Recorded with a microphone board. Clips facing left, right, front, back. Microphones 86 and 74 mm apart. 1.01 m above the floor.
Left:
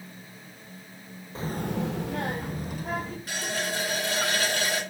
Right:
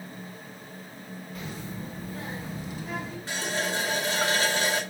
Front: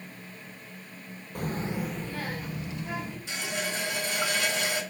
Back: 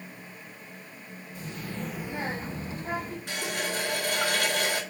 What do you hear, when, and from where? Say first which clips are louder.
1.4 s a child speaking: left 9 dB, front 6 dB; 30° left, 0.6 m; by 3.2 s 135° left, 1.7 m
3.3 s a running tap: right 3 dB, back 1 dB; 150° right, 2.5 m